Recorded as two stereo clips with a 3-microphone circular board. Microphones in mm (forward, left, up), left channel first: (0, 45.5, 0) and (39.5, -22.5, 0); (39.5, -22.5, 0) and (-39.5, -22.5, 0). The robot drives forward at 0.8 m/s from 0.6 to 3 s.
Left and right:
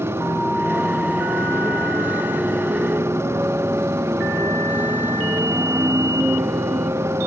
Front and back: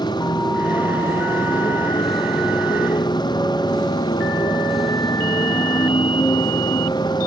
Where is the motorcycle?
10° right.